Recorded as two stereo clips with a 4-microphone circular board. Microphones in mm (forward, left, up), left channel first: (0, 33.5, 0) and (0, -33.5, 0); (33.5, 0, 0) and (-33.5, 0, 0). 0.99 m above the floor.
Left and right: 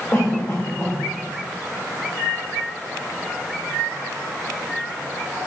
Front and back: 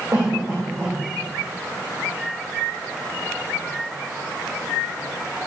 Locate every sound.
0.1 s a cough: 140° left, 3.5 m